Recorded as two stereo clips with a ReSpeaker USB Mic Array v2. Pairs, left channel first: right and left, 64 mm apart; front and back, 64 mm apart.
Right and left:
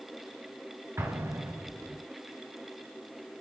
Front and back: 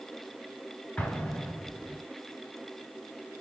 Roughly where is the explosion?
Left.